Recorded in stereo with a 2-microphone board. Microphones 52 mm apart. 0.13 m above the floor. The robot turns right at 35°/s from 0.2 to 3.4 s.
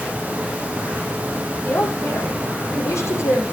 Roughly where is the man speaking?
Ahead left.